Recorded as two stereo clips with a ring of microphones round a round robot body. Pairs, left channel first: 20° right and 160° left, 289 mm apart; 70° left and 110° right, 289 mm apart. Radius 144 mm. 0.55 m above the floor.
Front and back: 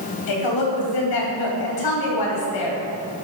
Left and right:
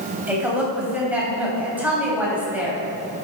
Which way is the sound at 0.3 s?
30° right.